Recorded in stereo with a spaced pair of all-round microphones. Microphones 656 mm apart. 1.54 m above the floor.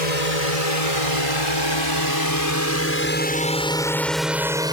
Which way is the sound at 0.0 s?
65° left (ahead or behind).